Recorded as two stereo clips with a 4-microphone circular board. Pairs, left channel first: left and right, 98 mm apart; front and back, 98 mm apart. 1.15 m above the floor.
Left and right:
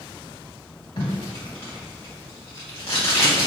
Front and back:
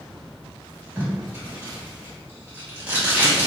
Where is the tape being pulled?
110° left, 1.7 m.